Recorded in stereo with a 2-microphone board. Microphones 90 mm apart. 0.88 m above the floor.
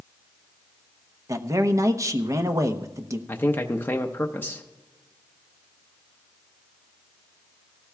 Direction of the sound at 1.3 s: 35° right (ahead or behind).